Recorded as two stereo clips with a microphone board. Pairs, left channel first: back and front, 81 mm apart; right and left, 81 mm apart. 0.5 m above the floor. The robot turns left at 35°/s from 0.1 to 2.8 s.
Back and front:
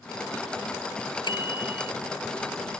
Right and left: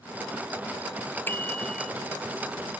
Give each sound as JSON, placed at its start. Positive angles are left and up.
{"t": 1.3, "sound": "a bicycle bell", "azimuth_deg": -155}